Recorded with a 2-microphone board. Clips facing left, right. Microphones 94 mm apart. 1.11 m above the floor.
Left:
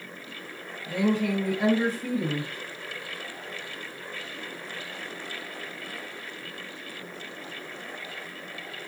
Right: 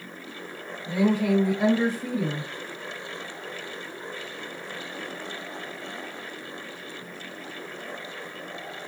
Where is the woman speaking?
20° right (ahead or behind), 1.5 m.